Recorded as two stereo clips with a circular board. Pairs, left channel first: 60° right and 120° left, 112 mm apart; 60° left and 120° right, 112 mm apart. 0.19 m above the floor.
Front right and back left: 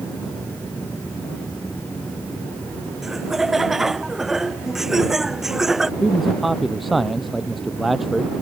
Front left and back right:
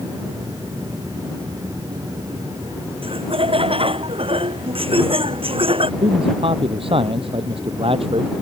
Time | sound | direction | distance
3.0 | laughter | 155° right | ?
6.0 | a man speaking | 150° right | ?